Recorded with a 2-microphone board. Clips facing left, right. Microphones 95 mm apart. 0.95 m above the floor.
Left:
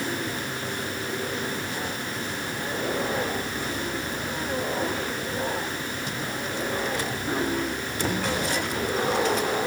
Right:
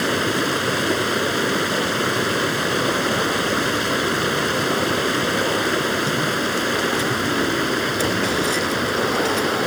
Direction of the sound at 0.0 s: 85° right.